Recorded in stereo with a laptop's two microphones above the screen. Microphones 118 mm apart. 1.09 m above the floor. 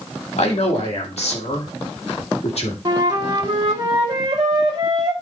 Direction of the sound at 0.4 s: 60° left (ahead or behind).